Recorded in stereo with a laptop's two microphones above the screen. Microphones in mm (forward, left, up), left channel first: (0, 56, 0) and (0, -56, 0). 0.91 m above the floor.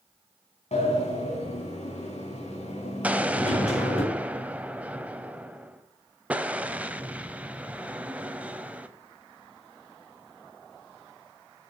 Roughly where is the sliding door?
Left.